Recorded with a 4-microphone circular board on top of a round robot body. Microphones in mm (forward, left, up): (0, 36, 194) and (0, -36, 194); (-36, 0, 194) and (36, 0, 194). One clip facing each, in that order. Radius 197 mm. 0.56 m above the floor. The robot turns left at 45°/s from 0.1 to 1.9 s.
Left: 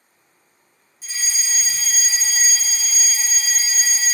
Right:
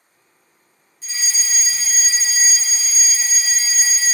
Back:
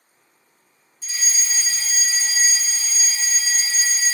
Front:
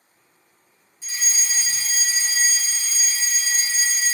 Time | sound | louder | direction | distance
1.0 | a fire alarm | right 1 dB, back 1 dB | 25° left | 1.5 m